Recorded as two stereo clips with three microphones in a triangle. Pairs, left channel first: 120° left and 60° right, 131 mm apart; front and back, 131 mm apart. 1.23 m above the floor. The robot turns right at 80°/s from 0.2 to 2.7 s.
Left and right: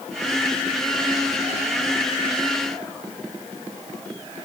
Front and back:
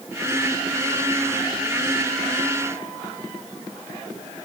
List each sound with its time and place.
Only background noise.